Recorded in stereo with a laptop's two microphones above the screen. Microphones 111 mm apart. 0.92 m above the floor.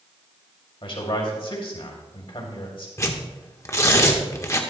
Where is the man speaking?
50° left (ahead or behind), 2.5 m.